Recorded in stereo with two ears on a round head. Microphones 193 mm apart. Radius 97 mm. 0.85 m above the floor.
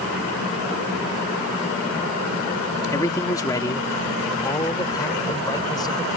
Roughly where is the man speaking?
Centre.